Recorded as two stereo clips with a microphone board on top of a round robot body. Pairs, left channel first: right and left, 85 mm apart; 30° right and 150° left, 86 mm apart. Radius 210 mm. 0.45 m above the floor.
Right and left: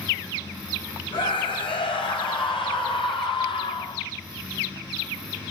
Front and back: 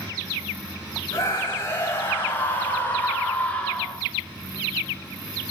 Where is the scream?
90° right, 4.5 m; by 4.0 s 105° right, 3 m.